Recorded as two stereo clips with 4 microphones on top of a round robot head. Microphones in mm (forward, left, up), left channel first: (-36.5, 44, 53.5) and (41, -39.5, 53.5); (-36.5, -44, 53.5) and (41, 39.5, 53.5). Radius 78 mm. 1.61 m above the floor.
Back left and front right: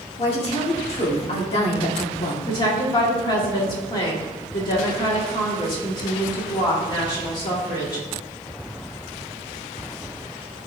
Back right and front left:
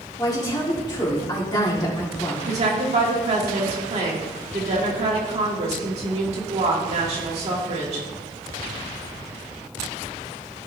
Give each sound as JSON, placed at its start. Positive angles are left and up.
{"t": 0.2, "sound": "a woman speaking", "azimuth_deg": 170, "distance_m": 1.8}
{"t": 2.5, "sound": "a woman speaking", "azimuth_deg": 80, "distance_m": 2.0}